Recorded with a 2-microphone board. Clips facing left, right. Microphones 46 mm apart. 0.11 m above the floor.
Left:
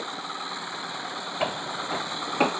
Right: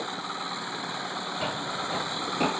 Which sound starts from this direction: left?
Footsteps, at 1.4 s.